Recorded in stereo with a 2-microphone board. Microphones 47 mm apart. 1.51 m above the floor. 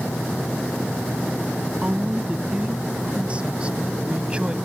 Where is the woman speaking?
25° right (ahead or behind); by 4.5 s 20° right (ahead or behind).